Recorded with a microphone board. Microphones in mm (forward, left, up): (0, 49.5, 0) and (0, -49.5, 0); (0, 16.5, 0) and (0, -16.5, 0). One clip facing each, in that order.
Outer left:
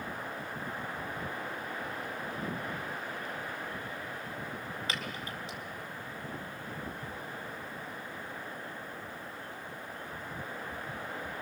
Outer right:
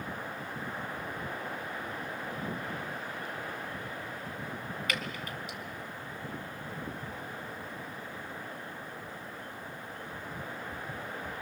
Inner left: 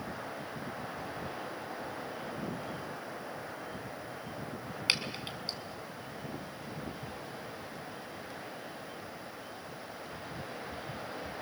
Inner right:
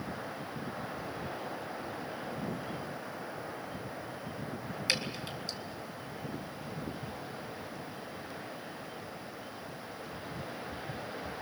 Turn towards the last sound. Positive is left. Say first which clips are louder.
# outer right 2 dB, inner left 1 dB
turn(degrees=30)  # may be behind; listen again after turning